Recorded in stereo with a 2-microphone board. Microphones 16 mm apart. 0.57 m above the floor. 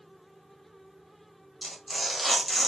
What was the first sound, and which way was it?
Tearing paper, centre (ahead or behind).